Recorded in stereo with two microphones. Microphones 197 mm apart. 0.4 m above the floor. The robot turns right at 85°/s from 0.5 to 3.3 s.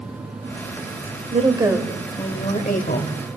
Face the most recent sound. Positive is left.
turn(degrees=120)